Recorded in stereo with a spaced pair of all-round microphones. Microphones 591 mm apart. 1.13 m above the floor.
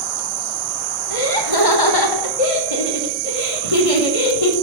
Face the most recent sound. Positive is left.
turn(degrees=65)  # may be behind; listen again after turning